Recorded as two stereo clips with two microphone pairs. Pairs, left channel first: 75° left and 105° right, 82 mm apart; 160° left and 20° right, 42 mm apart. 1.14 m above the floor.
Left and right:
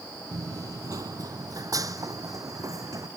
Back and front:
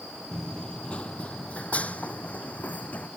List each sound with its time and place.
0.3 s running footsteps: 130° right; by 3.1 s 150° right